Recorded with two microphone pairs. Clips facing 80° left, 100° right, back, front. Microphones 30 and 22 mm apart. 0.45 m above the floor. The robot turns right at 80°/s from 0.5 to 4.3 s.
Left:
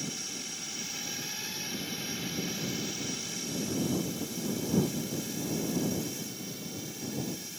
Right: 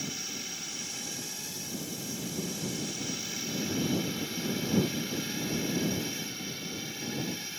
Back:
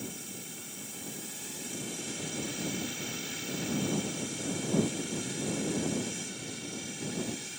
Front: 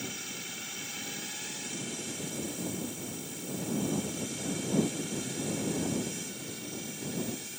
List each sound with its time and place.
0.0 s a drone: 25° right; by 7.6 s 105° right